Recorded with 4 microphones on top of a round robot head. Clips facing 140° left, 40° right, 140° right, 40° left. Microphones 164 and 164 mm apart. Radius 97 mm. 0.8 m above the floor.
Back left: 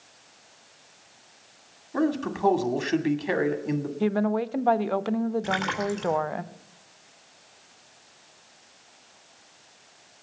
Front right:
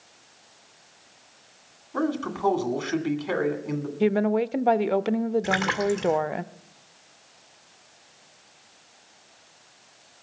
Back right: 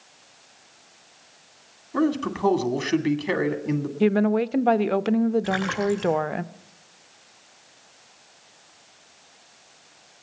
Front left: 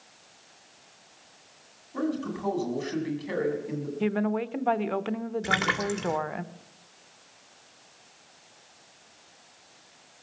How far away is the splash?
About 2.0 m.